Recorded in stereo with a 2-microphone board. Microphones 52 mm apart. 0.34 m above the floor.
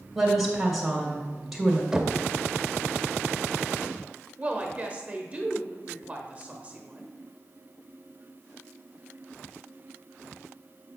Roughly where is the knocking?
Centre.